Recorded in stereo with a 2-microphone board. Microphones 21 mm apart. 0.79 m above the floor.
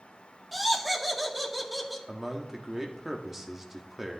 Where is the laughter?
Centre (ahead or behind), 1.7 m.